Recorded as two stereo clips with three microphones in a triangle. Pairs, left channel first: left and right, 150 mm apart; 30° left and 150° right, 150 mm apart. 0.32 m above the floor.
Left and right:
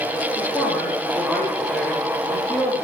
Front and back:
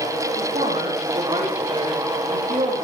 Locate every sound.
0.4 s a woman speaking: 175° left, 8.5 m